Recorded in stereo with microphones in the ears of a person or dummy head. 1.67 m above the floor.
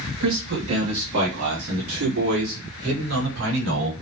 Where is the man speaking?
65° right (ahead or behind), 3 m; by 3.9 s 85° right, 6 m.